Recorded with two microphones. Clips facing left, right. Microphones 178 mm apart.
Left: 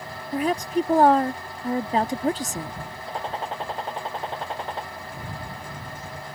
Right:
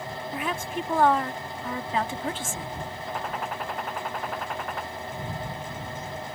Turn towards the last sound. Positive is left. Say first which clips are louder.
# left 3 dB
turn(degrees=30)  # may be behind; listen again after turning